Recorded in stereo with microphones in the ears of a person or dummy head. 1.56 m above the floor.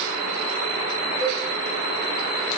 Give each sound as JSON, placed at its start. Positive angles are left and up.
{"t": 1.2, "sound": "a cowbell", "side_deg": -10, "distance_m": 3.5}